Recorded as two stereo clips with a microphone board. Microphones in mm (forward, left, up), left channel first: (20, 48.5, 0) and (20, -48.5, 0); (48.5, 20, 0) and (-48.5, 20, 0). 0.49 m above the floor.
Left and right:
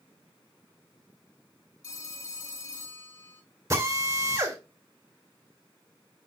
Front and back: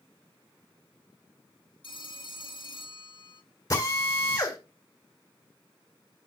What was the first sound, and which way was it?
A phone ringing, 35° left.